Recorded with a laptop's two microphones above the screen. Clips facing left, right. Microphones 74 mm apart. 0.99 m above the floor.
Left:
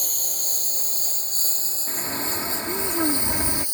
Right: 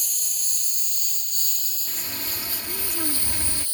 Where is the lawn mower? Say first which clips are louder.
Left 5 dB; 45° left (ahead or behind); by 3.8 s 15° left (ahead or behind).